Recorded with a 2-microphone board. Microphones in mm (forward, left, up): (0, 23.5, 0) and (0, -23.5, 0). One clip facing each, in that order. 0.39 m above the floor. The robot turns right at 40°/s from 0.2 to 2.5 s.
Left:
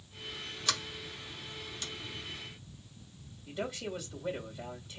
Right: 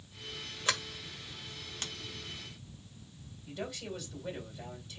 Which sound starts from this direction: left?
A man speaking, at 3.5 s.